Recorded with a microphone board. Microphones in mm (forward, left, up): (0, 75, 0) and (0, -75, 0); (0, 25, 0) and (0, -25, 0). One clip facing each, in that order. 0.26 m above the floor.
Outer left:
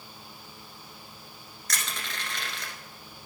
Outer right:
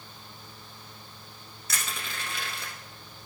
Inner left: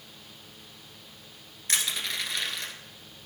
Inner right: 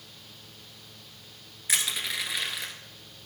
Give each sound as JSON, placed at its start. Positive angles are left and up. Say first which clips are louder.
{"t": 1.7, "sound": "crushing", "louder": "even, inner right 1 dB", "side_deg": -10, "distance_m": 1.3}